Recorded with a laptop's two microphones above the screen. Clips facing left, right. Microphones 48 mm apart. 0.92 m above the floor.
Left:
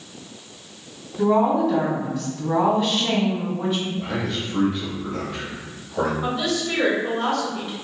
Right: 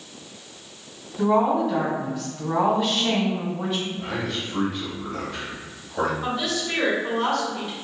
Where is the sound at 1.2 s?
5° right (ahead or behind), 1.8 m.